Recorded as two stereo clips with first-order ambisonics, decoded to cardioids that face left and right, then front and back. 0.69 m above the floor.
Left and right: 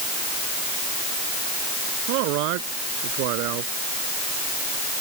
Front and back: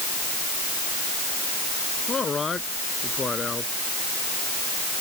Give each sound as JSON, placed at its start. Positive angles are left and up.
{"t": 2.1, "sound": "a man speaking", "azimuth_deg": -75}